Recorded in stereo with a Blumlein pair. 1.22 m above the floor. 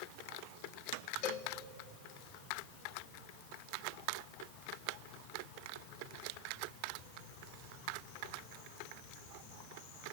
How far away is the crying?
I don't hear crying.